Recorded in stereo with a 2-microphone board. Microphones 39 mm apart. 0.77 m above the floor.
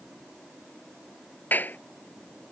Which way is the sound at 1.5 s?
55° left (ahead or behind).